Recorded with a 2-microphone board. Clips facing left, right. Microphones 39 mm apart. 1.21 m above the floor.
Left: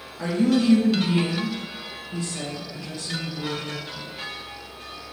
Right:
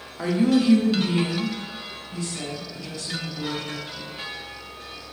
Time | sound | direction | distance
0.2 | a woman speaking | 20° right (ahead or behind) | 0.6 m